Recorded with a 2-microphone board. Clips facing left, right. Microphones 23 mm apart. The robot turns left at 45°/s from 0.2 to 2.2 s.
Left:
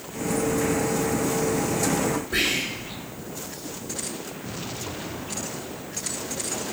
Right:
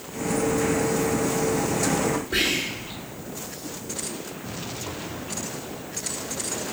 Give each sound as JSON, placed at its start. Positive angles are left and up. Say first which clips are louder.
{"t": 2.3, "sound": "whispering", "louder": "even", "side_deg": -30, "distance_m": 1.5}